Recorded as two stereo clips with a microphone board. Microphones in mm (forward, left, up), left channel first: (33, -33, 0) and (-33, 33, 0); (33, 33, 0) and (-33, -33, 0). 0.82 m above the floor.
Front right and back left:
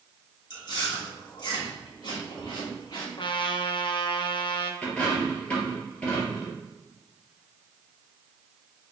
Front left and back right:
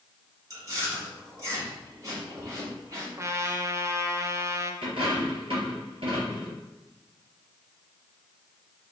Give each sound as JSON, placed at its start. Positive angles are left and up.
{"t": 0.5, "sound": "chewing", "azimuth_deg": -80, "distance_m": 1.5}
{"t": 3.2, "sound": "a trumpet", "azimuth_deg": -75, "distance_m": 0.5}
{"t": 4.8, "sound": "a dropped coin", "azimuth_deg": -120, "distance_m": 2.5}